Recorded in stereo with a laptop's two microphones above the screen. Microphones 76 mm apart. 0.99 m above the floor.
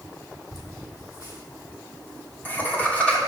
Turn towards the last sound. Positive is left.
turn(degrees=15)  # may be behind; listen again after turning